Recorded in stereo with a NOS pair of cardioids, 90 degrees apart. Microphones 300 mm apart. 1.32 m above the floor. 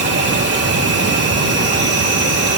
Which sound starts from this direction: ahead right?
An insect, at 0.0 s.